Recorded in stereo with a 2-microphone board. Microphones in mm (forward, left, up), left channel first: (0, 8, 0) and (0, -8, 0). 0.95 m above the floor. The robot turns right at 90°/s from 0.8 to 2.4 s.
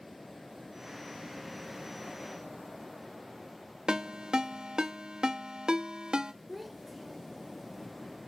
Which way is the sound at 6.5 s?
Centre (ahead or behind).